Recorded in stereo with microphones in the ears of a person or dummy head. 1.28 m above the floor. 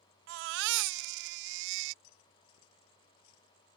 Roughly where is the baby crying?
Right.